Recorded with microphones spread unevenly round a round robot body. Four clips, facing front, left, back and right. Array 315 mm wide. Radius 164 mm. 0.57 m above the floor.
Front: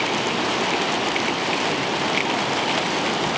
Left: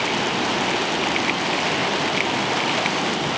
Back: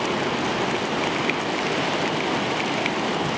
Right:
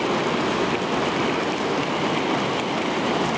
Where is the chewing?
No chewing in this recording.